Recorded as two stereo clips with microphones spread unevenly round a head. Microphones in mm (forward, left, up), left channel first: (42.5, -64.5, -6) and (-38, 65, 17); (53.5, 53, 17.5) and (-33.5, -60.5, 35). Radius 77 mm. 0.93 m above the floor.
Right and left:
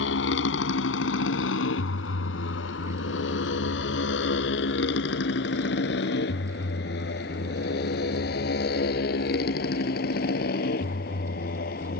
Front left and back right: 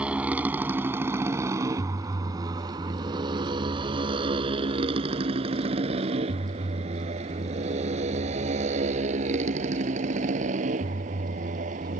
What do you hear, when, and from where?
0.0 s a motorcycle: 45° right; by 12.0 s 90° right